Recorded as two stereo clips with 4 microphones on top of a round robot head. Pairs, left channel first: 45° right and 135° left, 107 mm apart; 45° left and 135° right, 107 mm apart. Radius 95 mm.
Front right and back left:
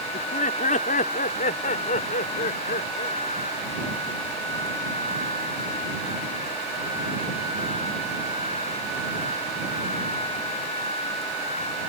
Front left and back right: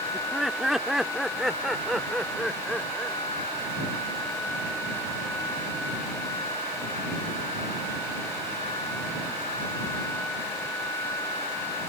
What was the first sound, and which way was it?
Laughter, 50° right.